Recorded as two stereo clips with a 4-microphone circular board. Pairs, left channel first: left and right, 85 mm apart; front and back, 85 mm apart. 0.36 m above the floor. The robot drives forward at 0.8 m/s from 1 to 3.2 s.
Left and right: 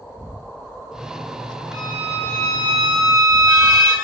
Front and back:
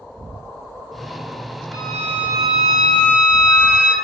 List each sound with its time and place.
1.7 s a violin: 85° right, 2 m; by 3.9 s 120° right, 2.5 m